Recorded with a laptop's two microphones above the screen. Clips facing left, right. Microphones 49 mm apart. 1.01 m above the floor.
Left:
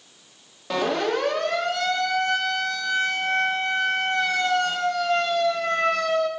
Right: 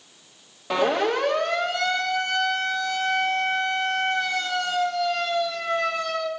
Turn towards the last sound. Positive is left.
turn(degrees=55)  # may be behind; listen again after turning